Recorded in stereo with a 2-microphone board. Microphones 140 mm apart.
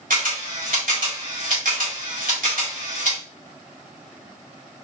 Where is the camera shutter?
75° right (ahead or behind), 1.8 m.